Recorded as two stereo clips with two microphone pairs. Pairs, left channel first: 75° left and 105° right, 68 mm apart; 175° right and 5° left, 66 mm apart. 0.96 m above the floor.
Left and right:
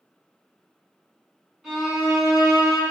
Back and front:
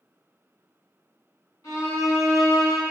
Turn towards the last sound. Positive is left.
turn(degrees=170)